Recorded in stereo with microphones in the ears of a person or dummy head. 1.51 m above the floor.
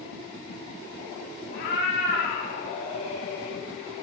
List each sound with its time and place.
1.5 s a cat meowing: 60° left (ahead or behind), 1.3 m; by 3.6 s 35° left (ahead or behind), 1.5 m